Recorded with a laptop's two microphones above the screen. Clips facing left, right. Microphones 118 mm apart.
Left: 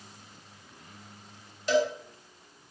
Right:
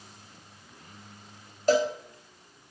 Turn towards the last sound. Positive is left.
turn(degrees=-40)  # may be behind; listen again after turning